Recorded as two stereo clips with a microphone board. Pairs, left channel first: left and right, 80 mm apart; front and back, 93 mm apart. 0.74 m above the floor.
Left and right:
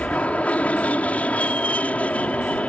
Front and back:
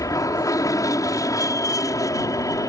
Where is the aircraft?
25° left.